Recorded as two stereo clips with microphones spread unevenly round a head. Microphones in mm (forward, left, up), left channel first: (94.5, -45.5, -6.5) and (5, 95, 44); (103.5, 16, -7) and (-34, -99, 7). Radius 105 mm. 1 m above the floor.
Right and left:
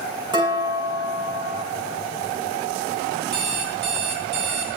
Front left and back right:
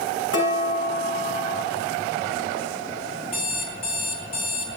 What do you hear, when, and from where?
0.3 s dishes clattering: 60° left, 6.5 m
3.3 s an alarm clock: 110° left, 2.5 m